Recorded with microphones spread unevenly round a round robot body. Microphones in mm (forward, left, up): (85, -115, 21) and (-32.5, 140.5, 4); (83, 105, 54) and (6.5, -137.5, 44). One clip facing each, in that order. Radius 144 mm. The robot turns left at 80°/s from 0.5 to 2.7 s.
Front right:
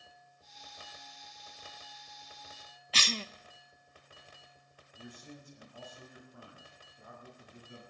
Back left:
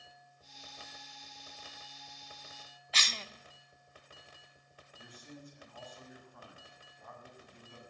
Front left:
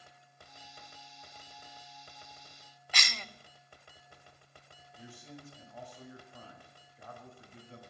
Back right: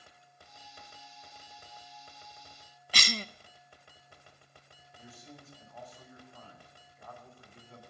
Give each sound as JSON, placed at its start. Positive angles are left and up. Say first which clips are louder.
{"t": 2.9, "sound": "a cough", "louder": "front right 8 dB, back right 8 dB", "azimuth_deg": -100, "distance_m": 0.6}
{"t": 5.0, "sound": "a man speaking", "louder": "front right 2 dB, front left 2 dB", "azimuth_deg": -5, "distance_m": 6.5}